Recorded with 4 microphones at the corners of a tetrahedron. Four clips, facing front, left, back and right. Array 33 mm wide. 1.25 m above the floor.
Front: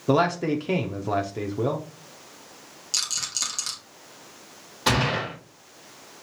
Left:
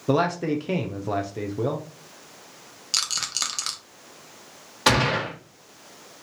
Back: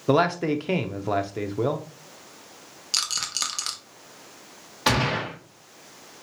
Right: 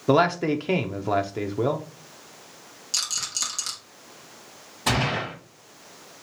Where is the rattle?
130° left, 1.1 m.